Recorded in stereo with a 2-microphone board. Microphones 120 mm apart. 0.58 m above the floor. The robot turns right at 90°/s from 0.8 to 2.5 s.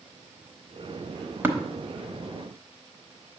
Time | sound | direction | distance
1.4 | tapping | 15° right (ahead or behind) | 1.0 m